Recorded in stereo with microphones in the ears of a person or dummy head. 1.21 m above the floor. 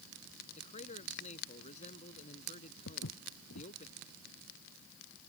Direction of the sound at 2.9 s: 65° left (ahead or behind).